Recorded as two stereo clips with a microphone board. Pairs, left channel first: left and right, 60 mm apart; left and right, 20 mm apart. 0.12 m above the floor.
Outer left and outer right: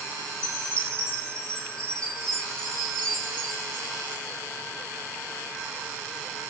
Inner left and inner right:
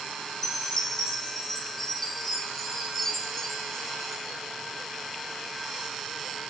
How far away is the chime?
About 4 m.